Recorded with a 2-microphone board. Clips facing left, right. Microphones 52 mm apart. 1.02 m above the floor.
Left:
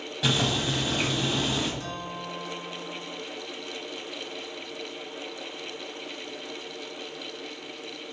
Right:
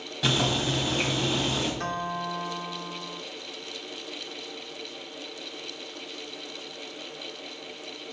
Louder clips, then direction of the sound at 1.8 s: Right 5 dB; 50° right (ahead or behind).